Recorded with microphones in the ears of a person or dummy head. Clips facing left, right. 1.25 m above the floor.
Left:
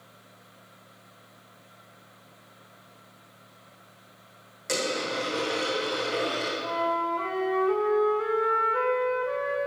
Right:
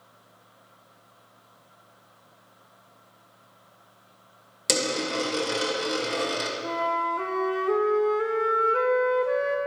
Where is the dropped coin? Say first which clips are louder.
Right 2 dB; 55° right (ahead or behind), 1.6 m.